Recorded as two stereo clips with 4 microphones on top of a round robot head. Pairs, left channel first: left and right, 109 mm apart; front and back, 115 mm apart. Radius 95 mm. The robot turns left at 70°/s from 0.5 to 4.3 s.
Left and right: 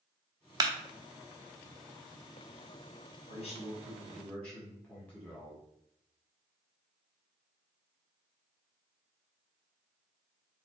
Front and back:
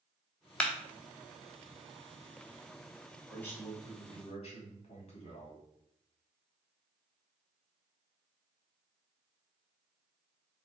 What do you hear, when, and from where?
0.6 s a clap: 75° right, 0.7 m; by 0.7 s 80° right, 0.7 m
3.3 s a man speaking: 95° left, 1.7 m; by 5.6 s 20° left, 1.7 m